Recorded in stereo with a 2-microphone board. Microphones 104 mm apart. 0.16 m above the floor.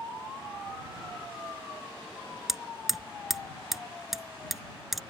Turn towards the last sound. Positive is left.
turn(degrees=0)  # may be behind; listen again after turning